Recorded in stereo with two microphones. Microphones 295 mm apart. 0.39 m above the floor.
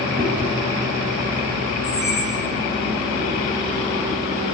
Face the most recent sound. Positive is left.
turn(degrees=-25)  # may be behind; listen again after turning